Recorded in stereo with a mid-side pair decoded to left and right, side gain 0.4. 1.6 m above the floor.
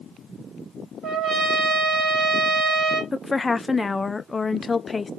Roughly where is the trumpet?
Right.